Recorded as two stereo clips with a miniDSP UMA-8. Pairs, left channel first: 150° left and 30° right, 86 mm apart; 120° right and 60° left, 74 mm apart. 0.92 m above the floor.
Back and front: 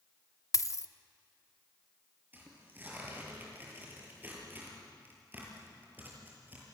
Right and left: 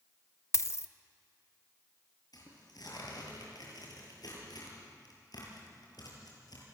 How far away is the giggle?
No giggle in this recording.